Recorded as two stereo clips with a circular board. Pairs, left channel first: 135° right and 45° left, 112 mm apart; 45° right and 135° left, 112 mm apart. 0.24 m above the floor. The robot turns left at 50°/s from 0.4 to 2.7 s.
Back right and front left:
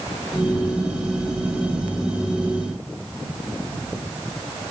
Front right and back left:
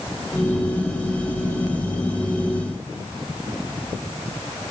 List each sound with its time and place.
Only background noise.